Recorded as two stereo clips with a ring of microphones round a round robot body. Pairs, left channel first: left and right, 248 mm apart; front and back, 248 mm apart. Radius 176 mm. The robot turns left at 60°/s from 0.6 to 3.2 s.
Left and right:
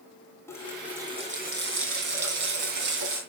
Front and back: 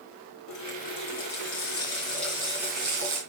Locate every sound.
0.5 s a running tap: 10° left, 3 m; by 3.2 s 145° right, 3 m